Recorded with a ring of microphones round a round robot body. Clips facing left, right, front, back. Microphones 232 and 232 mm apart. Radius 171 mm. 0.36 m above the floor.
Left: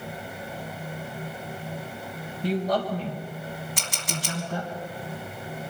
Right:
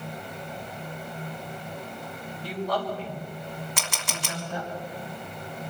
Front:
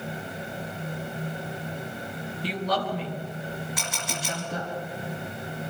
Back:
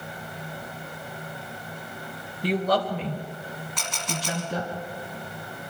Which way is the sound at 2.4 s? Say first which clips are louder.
Left 4 dB, back 5 dB; 155° left.